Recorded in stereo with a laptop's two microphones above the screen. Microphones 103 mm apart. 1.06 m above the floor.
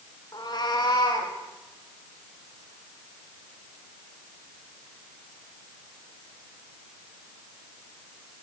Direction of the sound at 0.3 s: 40° left (ahead or behind).